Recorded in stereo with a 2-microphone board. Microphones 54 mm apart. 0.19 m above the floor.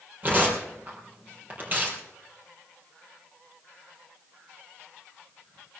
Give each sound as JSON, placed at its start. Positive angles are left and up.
{"t": 0.2, "sound": "tearing paper", "side_deg": -35, "distance_m": 4.5}